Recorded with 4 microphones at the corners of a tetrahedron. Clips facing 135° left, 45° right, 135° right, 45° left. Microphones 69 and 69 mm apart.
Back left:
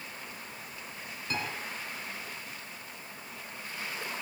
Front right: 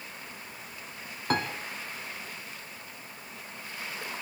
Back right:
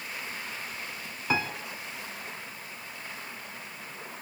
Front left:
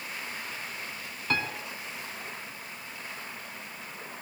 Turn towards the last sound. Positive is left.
turn(degrees=-60)